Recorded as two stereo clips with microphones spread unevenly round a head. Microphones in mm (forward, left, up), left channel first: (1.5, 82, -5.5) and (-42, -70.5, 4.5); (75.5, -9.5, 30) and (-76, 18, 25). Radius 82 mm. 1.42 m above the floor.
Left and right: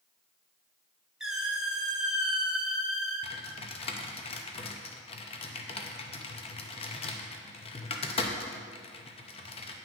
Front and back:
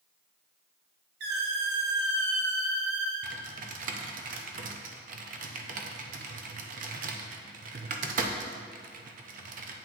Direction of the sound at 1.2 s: 170° left.